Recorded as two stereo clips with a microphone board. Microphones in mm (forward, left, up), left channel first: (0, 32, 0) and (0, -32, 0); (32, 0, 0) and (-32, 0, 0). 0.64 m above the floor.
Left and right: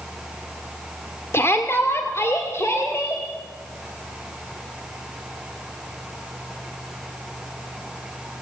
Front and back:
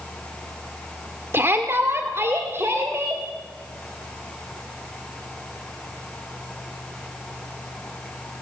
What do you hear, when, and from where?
1.3 s a shout: 135° left, 2.0 m